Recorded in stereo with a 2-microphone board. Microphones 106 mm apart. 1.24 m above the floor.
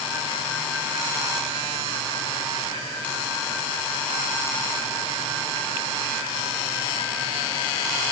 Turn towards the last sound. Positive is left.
No sound to turn to.